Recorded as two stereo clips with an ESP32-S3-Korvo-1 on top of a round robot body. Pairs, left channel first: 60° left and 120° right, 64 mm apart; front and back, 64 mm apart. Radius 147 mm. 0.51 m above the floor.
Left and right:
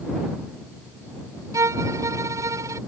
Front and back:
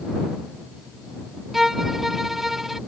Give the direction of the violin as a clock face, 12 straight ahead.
3 o'clock.